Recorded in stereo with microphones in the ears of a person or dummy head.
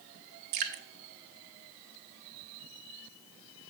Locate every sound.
0.5 s dripping: 55° right (ahead or behind), 0.9 m